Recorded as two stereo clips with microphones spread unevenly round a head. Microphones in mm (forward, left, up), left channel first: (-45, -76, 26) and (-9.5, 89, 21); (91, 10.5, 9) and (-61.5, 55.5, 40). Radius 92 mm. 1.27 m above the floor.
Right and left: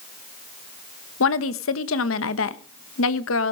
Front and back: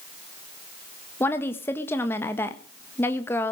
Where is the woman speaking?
95° right, 1.2 m.